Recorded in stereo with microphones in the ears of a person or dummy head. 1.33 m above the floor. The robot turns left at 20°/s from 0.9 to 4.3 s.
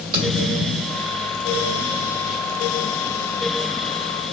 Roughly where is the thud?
Right.